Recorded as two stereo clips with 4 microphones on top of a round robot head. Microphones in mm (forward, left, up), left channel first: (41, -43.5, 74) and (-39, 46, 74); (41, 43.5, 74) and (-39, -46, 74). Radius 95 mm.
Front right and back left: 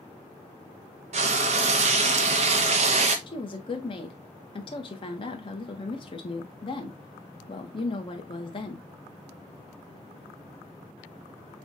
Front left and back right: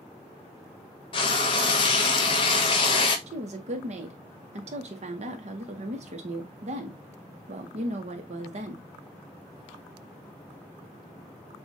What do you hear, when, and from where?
1.1 s frying: 100° left, 0.7 m
3.3 s a woman speaking: 100° right, 1.2 m